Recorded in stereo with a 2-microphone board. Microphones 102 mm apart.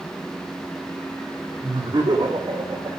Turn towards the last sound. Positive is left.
turn(degrees=-45)  # may be behind; listen again after turning